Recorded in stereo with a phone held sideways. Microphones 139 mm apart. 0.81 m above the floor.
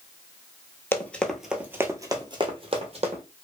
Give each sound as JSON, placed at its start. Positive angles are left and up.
{"t": 0.9, "sound": "running footsteps", "side_deg": 15, "distance_m": 0.8}